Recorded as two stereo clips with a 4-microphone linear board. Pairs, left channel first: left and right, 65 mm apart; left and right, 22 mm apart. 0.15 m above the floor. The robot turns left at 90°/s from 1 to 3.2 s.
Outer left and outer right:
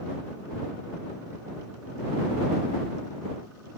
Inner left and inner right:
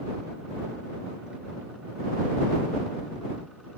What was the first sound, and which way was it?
Only background noise.